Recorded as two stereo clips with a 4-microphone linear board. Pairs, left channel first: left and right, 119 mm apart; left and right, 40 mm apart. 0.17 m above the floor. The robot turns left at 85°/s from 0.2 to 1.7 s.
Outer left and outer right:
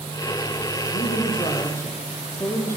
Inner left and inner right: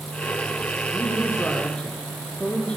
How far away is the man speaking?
About 5 m.